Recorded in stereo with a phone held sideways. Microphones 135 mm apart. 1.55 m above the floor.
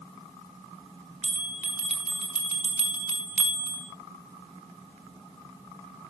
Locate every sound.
1.2 s a bell: 60° right (ahead or behind), 5.5 m